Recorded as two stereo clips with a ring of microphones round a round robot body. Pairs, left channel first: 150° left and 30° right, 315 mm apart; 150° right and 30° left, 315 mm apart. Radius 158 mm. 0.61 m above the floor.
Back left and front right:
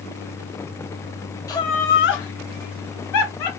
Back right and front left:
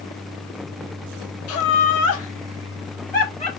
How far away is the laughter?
About 1.3 m.